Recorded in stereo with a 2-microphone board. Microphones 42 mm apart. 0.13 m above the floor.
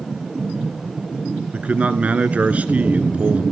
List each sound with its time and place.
1.5 s a man speaking: 40° right (ahead or behind), 1.4 m